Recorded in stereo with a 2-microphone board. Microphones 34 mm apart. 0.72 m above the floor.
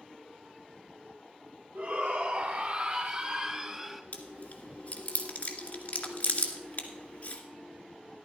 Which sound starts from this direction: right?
A shout, at 1.8 s.